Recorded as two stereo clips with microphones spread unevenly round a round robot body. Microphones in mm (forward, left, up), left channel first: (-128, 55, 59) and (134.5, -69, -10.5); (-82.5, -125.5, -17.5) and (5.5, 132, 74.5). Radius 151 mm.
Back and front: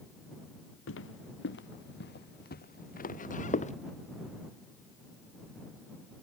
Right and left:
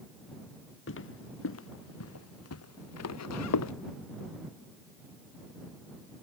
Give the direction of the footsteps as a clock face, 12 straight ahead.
5 o'clock.